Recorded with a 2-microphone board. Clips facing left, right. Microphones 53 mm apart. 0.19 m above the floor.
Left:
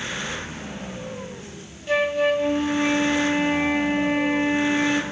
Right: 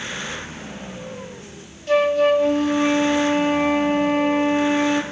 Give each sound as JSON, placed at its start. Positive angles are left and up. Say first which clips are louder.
{"t": 1.9, "sound": "a flute", "louder": "right 4 dB", "side_deg": 10, "distance_m": 1.2}